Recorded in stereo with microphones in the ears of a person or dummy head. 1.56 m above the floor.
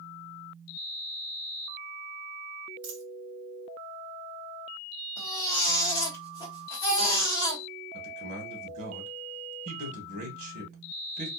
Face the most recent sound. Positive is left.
turn(degrees=-65)  # may be behind; listen again after turning